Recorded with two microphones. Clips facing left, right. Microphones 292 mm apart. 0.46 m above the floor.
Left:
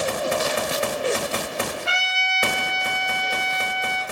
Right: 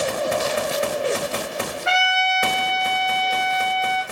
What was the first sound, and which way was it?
A trumpet, 45° left (ahead or behind).